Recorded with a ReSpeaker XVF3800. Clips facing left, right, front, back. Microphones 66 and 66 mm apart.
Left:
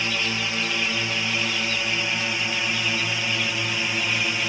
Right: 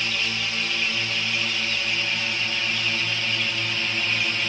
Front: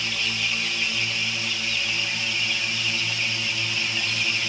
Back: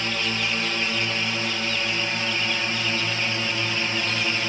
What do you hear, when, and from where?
0.0 s a drone: 150° left; by 4.5 s 160° left